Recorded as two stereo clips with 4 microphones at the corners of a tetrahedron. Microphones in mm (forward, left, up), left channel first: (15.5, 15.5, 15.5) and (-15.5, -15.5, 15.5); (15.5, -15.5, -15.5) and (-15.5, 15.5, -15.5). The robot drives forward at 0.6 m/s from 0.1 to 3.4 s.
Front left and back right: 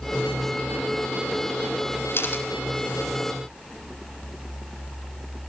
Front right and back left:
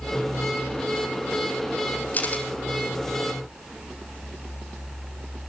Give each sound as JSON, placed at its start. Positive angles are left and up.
{"t": 2.1, "sound": "a camera shutter", "azimuth_deg": 10, "distance_m": 4.0}